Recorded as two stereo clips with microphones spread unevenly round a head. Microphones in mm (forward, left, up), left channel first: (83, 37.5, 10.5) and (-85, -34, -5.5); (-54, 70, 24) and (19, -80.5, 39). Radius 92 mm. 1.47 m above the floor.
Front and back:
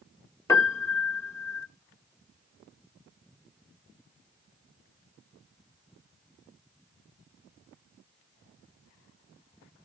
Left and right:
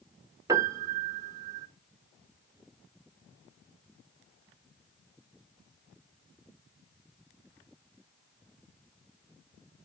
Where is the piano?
25° right, 0.8 m.